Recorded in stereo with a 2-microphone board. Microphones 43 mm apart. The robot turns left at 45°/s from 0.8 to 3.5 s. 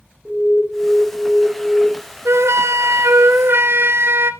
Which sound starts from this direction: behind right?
An alarm, at 0.2 s.